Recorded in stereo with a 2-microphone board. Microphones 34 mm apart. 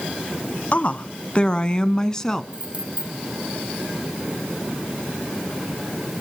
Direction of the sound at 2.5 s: 30° right (ahead or behind).